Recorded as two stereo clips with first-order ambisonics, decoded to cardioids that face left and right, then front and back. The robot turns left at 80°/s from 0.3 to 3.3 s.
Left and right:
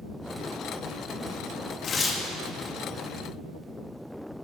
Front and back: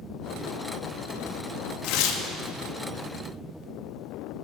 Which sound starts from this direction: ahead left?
Tearing paper, at 1.8 s.